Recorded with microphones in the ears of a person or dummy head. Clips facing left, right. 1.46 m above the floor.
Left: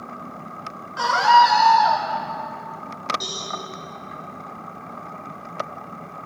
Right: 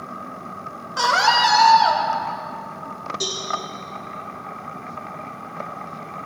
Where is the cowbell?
45° right (ahead or behind), 3 m.